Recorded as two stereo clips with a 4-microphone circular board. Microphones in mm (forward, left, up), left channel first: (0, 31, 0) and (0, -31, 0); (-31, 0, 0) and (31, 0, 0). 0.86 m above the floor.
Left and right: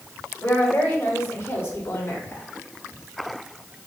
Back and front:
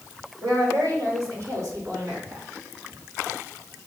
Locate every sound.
0.4 s a woman speaking: 20° left, 3.5 m; by 2.5 s 40° left, 4 m